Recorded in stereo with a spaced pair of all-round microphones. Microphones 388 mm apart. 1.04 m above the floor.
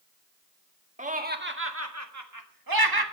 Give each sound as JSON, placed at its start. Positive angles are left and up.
{"t": 1.0, "sound": "laughter", "side_deg": -20, "distance_m": 1.9}